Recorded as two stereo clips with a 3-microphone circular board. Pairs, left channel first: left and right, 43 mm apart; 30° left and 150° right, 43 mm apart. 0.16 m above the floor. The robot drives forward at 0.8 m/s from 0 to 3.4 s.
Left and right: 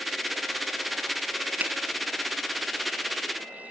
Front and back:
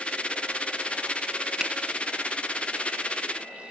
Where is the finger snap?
70° right, 1.2 m; by 1.7 s 80° right, 1.2 m.